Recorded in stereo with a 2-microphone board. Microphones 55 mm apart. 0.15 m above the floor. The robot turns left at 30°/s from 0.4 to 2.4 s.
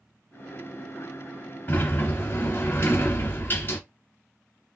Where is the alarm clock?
I don't hear an alarm clock.